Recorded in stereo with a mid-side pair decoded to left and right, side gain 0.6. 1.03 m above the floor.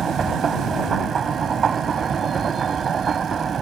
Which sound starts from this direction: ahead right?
A machine running, at 0.0 s.